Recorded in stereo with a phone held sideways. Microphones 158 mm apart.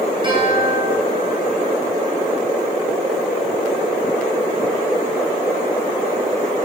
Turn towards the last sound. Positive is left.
turn(degrees=-30)  # may be behind; listen again after turning